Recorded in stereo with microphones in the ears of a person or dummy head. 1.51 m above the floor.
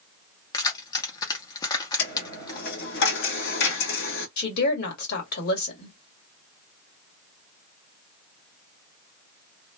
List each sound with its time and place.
0.5 s keys jangling: 25° left (ahead or behind), 0.8 m
2.0 s a dropped coin: 60° left (ahead or behind), 1.8 m
4.4 s a woman speaking: 65° left (ahead or behind), 2 m